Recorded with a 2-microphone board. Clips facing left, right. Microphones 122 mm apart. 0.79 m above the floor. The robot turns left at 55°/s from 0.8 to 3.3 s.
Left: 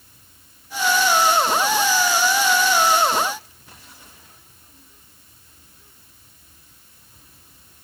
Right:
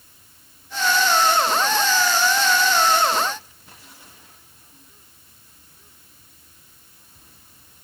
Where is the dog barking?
No dog barking in this recording.